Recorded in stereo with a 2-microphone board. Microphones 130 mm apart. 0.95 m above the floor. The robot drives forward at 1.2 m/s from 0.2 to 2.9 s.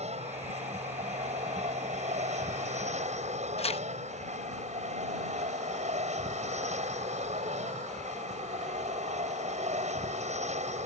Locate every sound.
0.0 s an aircraft: 55° right (ahead or behind); by 10.9 s 60° right (ahead or behind)
3.6 s tearing paper: 50° left (ahead or behind)